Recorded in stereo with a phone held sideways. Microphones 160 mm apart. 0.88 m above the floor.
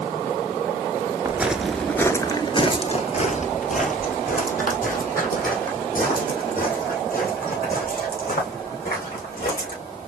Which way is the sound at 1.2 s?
15° right (ahead or behind).